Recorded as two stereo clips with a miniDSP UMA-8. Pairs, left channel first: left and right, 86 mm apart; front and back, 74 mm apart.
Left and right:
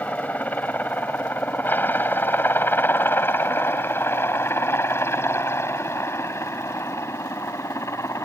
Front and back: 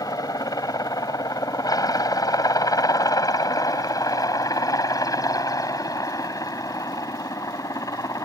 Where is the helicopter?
20° left; by 8.3 s 35° left.